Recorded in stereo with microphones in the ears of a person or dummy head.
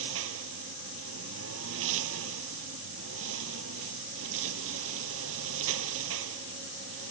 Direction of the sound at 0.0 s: 75° right (ahead or behind).